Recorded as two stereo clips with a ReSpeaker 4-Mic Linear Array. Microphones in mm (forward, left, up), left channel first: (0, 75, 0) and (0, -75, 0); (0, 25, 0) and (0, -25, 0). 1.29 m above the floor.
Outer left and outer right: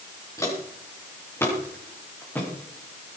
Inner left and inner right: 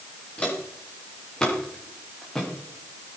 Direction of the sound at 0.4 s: 20° left (ahead or behind).